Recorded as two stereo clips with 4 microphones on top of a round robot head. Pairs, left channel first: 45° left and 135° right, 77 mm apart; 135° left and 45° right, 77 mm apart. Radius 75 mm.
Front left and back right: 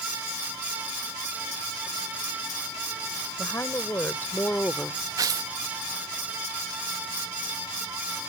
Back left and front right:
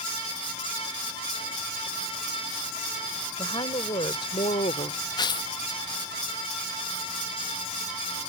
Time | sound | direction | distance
3.4 | a woman speaking | 105° left | ?
5.2 | tearing paper | 175° left | ?